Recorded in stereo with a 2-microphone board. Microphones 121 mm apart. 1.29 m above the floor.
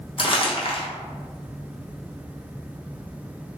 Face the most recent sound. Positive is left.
turn(degrees=50)  # may be behind; listen again after turning